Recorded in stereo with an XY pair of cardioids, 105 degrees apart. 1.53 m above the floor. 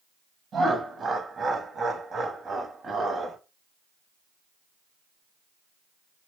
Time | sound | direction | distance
0.5 | laughter | 40° right | 0.9 m